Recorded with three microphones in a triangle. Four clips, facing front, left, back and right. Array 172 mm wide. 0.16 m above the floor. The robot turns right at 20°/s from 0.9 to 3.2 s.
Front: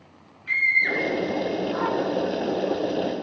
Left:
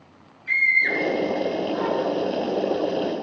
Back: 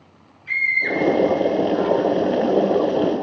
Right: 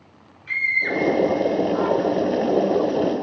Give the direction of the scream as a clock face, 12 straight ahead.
2 o'clock.